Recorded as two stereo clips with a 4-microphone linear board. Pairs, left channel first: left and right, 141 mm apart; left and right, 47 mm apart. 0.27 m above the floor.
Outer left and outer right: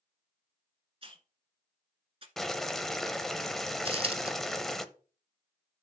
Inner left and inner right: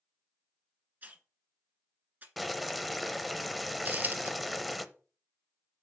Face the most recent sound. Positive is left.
turn(degrees=-40)  # may be behind; listen again after turning